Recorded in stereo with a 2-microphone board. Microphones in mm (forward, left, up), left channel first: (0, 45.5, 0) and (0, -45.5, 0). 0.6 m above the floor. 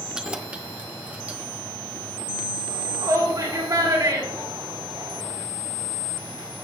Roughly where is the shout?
Right.